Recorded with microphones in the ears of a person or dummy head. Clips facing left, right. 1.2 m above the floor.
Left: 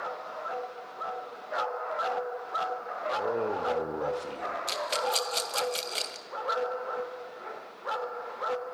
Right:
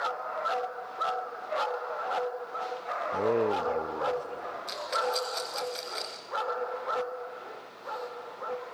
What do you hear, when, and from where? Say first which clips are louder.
3.1 s a man speaking: right 4 dB; 50° right (ahead or behind), 1.1 m; by 4.6 s 40° left (ahead or behind), 2 m
4.7 s a rattle: even; 40° left (ahead or behind), 1.1 m